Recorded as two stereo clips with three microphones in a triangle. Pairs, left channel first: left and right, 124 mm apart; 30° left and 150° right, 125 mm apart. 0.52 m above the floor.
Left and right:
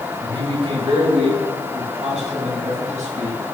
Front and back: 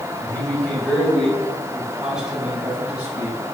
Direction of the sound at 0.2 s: 45° right.